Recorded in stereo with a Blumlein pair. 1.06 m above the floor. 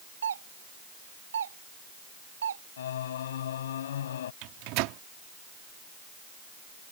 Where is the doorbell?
65° right.